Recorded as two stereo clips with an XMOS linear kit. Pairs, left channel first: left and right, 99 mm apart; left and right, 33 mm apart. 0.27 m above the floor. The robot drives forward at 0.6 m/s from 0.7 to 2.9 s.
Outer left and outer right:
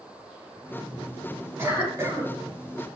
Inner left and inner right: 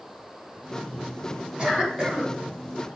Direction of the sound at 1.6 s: 30° right (ahead or behind).